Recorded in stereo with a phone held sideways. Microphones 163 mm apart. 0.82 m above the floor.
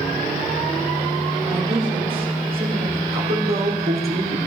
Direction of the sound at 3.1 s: 70° right (ahead or behind).